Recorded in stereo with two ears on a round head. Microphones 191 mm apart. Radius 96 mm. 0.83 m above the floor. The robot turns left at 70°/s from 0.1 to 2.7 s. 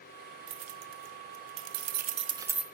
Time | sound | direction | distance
0.5 | keys jangling | 25° right (ahead or behind) | 0.6 m